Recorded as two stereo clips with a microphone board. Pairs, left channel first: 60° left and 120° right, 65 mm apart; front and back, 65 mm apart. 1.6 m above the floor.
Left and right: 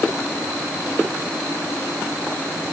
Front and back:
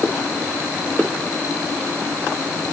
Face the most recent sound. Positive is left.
No sound to turn to.